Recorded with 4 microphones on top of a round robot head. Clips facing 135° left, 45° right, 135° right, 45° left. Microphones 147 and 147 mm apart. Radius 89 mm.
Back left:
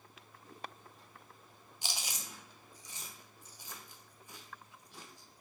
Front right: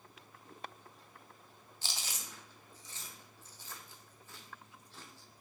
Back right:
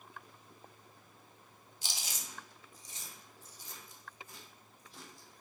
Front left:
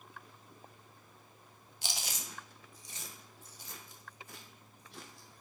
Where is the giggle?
I don't hear a giggle.